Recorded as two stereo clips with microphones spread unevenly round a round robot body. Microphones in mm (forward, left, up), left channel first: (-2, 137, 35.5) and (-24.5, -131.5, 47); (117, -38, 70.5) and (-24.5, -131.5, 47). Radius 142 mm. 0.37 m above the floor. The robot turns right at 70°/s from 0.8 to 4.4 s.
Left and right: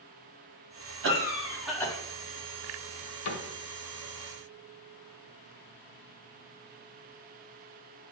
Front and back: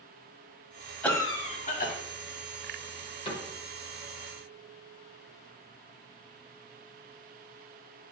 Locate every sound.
1.0 s a cough: 50° right, 2 m; by 1.9 s 10° left, 2 m
3.2 s a cupboard door: 100° left, 1.4 m; by 3.5 s 115° left, 1.4 m